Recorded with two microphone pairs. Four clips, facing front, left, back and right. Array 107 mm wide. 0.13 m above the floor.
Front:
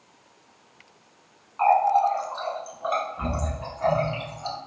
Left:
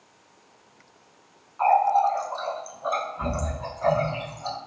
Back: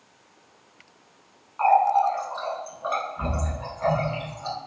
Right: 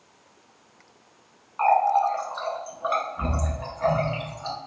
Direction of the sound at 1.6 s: 95° right.